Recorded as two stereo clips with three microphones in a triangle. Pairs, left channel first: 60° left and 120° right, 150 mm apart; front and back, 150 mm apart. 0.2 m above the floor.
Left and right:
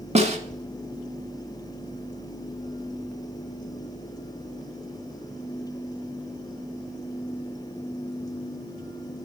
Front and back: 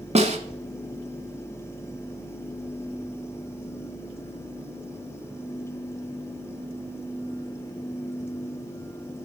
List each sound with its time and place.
0.1 s a snare drum: 150° right, 0.8 m